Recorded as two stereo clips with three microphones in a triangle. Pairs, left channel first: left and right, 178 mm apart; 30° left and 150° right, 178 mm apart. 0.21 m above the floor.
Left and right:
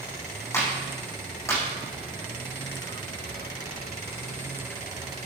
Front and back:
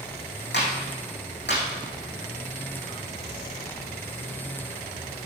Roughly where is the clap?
Ahead.